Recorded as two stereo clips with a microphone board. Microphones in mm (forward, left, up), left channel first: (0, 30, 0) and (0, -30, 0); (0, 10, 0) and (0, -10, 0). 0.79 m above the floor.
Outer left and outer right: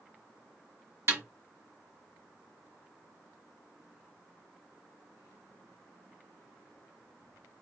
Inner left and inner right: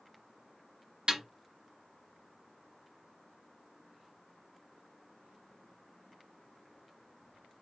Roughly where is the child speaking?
No child speaking in this recording.